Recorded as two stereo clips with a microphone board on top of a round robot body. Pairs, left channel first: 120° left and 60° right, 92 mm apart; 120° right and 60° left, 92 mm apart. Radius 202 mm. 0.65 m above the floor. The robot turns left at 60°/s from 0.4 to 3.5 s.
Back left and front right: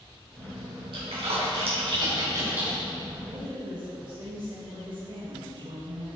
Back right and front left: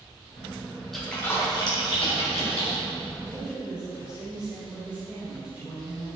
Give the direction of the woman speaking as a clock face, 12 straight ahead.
12 o'clock.